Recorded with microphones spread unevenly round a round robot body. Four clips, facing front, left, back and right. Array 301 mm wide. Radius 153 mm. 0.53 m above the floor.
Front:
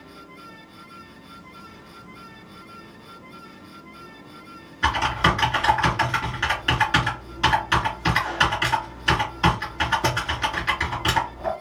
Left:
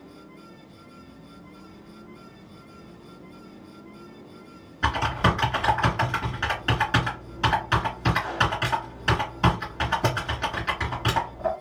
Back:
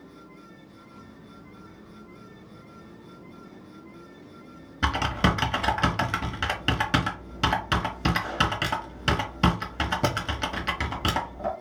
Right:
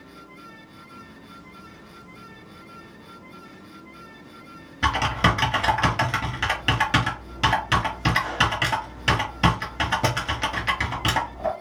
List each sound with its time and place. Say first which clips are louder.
4.8 s typing on a keyboard: right 2 dB, front 4 dB; 155° right, 0.7 m